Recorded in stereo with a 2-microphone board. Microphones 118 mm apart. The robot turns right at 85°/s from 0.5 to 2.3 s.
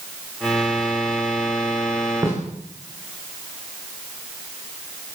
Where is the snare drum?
25° right (ahead or behind), 9.5 m; by 2.4 s 30° right (ahead or behind), 9.5 m.